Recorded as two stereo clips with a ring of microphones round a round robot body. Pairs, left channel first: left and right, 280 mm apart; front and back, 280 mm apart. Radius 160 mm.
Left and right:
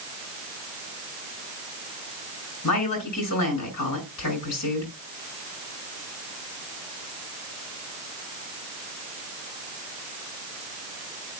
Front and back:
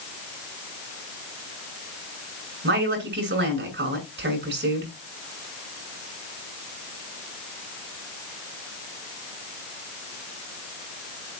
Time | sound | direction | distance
2.6 | a woman speaking | 130° left | 7.5 m